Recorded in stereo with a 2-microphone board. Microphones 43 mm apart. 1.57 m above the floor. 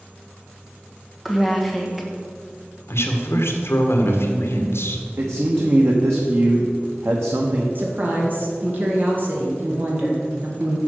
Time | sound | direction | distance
1.2 | a woman speaking | 5° right (ahead or behind) | 1.5 m
2.9 | a man speaking | 70° left (ahead or behind) | 1.4 m
5.2 | a man speaking | 65° right (ahead or behind) | 1.0 m
7.8 | a woman speaking | 45° right (ahead or behind) | 1.9 m